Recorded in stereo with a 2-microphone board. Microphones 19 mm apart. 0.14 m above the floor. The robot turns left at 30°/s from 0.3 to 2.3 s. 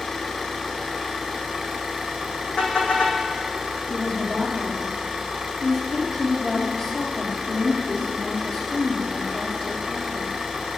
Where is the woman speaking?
50° left (ahead or behind), 4.5 m.